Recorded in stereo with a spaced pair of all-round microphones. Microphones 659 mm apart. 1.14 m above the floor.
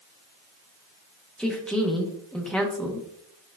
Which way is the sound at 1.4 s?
Centre (ahead or behind).